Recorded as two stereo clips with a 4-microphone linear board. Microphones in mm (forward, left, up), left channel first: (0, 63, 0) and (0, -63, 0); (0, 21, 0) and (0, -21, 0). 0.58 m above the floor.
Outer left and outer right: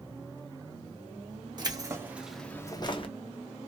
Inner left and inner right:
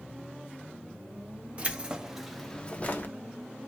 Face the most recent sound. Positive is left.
turn(degrees=45)  # may be behind; listen again after turning